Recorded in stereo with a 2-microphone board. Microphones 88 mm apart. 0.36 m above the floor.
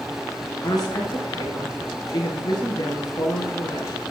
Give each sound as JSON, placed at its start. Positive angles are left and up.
{"t": 0.6, "sound": "a woman speaking", "side_deg": 45, "distance_m": 5.5}